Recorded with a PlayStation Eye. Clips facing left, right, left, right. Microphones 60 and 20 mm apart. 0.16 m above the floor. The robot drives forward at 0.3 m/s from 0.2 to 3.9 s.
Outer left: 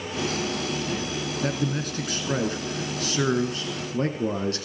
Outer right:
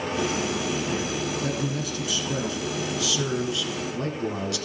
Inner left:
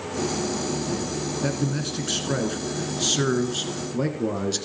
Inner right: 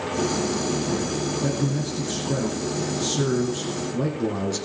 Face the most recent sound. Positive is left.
turn(degrees=35)  # may be behind; listen again after turning